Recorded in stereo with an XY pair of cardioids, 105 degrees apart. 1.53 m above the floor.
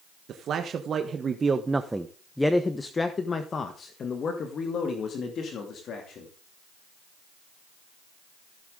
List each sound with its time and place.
0.3 s a man speaking: 60° right, 1.5 m; by 6.3 s 65° left, 3 m